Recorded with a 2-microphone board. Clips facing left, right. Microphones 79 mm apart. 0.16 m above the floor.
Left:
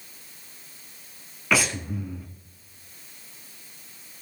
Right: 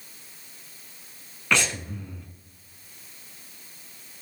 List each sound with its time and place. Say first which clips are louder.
1.5 s breathing: left 1 dB; 5° left (ahead or behind), 0.9 m